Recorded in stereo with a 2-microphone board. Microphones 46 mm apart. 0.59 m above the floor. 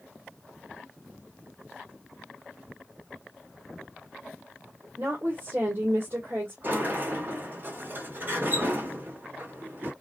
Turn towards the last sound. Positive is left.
turn(degrees=-45)  # may be behind; listen again after turning